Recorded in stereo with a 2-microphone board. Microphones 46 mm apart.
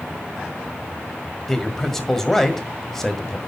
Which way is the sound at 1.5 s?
10° left (ahead or behind).